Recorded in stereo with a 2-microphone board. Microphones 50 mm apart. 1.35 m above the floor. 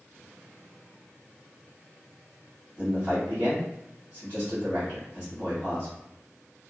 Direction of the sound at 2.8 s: 30° right (ahead or behind).